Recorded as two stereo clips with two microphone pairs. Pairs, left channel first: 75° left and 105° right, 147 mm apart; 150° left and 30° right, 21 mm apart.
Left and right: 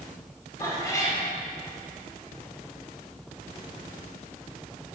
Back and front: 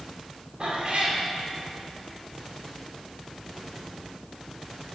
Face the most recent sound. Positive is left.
turn(degrees=10)